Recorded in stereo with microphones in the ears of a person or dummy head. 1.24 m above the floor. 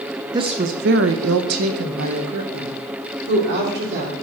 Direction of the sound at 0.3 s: 20° right (ahead or behind).